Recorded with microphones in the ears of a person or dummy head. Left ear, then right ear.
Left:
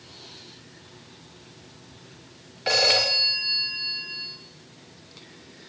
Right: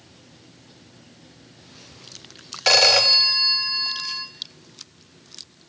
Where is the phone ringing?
25° right (ahead or behind), 0.8 m.